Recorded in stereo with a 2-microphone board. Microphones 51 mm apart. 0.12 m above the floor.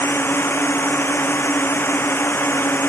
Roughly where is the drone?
Left.